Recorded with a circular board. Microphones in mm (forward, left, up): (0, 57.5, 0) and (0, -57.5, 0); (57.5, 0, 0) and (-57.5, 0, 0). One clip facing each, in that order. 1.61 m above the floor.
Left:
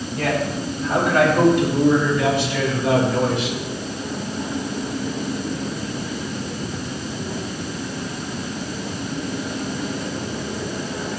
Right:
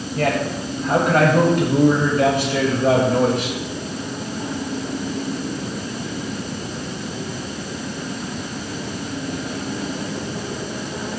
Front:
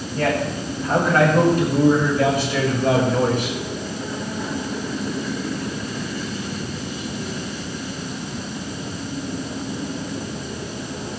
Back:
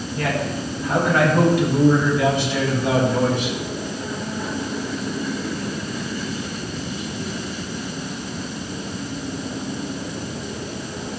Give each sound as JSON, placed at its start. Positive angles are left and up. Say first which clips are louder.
{"t": 0.1, "sound": "a man speaking", "louder": "right 2 dB, front 3 dB", "azimuth_deg": -55, "distance_m": 8.0}